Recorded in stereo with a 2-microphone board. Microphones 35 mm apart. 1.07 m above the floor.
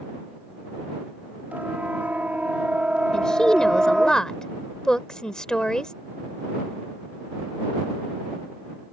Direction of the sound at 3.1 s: 20° left (ahead or behind).